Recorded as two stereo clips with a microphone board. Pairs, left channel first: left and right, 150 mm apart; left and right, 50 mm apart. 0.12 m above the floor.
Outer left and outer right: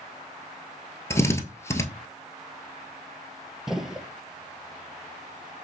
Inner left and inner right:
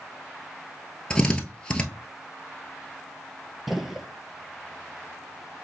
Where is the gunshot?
5° right (ahead or behind), 0.6 m.